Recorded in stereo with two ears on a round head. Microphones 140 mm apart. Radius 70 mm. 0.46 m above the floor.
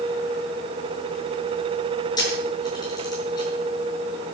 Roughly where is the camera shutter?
Left.